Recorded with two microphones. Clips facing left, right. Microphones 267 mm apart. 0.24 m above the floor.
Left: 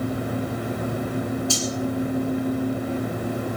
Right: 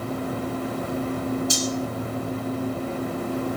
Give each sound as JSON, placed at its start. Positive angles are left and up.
{"t": 1.5, "sound": "cutlery clinking", "side_deg": -20, "distance_m": 5.5}